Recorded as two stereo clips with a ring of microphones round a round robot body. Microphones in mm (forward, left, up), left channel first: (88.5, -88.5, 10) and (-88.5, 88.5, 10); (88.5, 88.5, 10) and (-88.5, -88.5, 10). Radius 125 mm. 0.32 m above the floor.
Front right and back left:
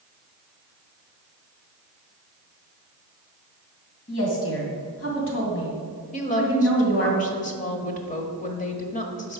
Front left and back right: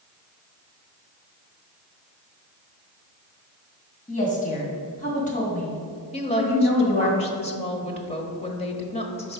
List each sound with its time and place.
4.1 s a woman speaking: 10° right, 2.5 m
6.1 s a woman speaking: 5° right, 1.2 m